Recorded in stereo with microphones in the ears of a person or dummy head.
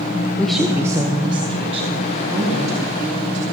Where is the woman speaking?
10° left (ahead or behind), 0.6 m; by 3.4 s 40° right (ahead or behind), 3 m.